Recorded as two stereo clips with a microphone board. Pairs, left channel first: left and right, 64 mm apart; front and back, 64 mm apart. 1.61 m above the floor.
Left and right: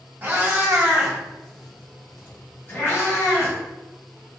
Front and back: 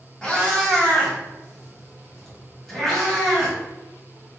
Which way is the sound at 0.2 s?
65° right.